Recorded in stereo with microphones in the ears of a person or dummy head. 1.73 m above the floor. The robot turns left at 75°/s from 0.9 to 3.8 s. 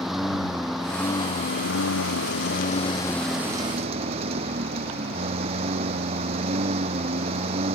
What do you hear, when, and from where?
0.0 s a lawn mower: straight behind; by 7.8 s 40° right